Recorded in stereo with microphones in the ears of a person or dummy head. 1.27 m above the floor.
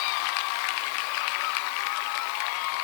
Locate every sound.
Only background noise.